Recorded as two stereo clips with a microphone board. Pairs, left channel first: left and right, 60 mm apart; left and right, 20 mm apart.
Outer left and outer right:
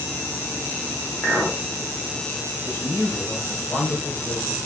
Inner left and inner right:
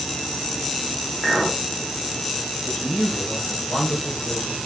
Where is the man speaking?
35° left (ahead or behind), 1.1 m.